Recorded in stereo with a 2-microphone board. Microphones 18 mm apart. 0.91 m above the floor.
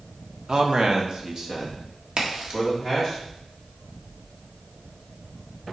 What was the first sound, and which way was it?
A man speaking, 40° right (ahead or behind).